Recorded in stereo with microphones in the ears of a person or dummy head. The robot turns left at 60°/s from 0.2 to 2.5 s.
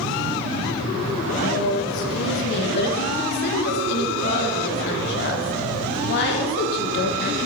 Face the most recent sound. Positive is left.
turn(degrees=60)